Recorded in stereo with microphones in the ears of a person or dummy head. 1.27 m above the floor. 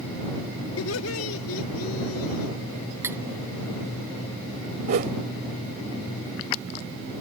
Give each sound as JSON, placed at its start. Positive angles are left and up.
{"t": 0.8, "sound": "laughter", "side_deg": 80}
{"t": 3.0, "sound": "cutlery clinking", "side_deg": -20}
{"t": 4.9, "sound": "a whoosh", "side_deg": -50}